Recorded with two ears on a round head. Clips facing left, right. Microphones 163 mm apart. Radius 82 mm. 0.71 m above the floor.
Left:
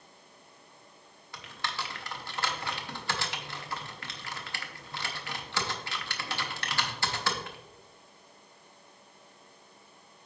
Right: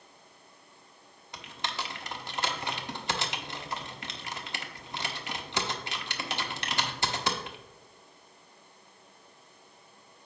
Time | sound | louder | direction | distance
1.3 | typing on a keyboard | right 1 dB | 20° right (ahead or behind) | 0.7 m